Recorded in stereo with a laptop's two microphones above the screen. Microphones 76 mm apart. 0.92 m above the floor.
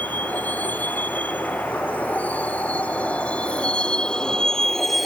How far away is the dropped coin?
No dropped coin in this recording.